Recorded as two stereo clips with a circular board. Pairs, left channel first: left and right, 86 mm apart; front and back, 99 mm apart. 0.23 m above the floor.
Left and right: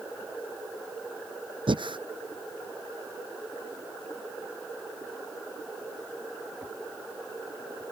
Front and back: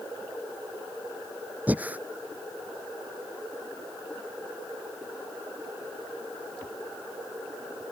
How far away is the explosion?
I don't hear an explosion.